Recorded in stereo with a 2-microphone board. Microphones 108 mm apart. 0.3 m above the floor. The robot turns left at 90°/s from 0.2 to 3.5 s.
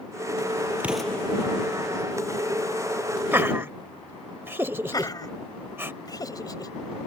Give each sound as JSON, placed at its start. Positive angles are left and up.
{"t": 0.8, "sound": "an explosion", "azimuth_deg": -165}
{"t": 3.3, "sound": "laughter", "side_deg": -20}
{"t": 4.9, "sound": "laughter", "side_deg": 35}